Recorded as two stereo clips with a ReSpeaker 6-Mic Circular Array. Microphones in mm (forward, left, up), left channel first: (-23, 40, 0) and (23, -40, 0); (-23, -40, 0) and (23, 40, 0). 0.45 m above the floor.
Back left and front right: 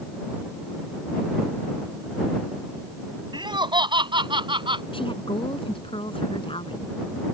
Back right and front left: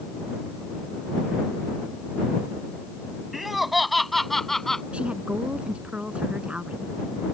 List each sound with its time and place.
3.3 s laughter: 30° right; by 4.8 s 35° right
4.9 s a woman speaking: 135° left